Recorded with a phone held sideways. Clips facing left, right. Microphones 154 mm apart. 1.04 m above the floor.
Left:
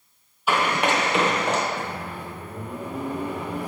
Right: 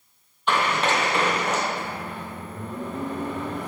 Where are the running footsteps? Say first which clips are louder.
Left 1 dB; 5° left (ahead or behind), 1.4 m; by 1.6 s 35° left (ahead or behind), 1.2 m.